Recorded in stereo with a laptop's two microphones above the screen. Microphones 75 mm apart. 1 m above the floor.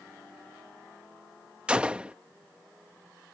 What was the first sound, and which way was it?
A gunshot, 15° right (ahead or behind).